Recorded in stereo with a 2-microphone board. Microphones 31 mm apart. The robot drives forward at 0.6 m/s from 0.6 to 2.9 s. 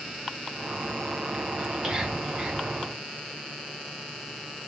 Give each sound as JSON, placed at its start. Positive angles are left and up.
{"t": 1.6, "sound": "whispering", "side_deg": -10, "distance_m": 2.0}